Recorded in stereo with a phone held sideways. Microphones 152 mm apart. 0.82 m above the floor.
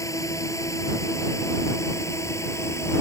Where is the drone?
20° left (ahead or behind).